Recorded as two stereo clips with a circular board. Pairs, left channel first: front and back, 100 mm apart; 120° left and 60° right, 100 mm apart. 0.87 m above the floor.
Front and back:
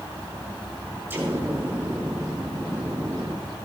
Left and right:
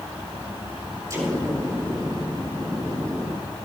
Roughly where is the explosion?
Behind right.